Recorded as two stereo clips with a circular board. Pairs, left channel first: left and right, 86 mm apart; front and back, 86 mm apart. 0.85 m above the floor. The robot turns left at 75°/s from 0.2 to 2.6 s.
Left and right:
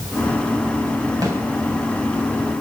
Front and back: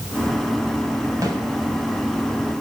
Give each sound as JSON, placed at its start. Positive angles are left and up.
{"t": 1.2, "sound": "a snare drum", "azimuth_deg": -135, "distance_m": 2.5}